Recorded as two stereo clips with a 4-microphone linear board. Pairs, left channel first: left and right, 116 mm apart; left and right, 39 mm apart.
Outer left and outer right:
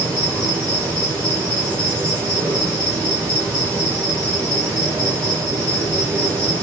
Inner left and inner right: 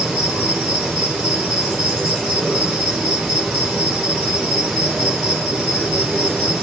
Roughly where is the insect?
Centre.